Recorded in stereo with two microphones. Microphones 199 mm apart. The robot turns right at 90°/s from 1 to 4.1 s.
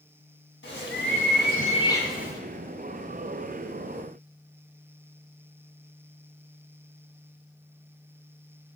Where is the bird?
80° left, 2.5 m; by 2.4 s 155° right, 2.5 m.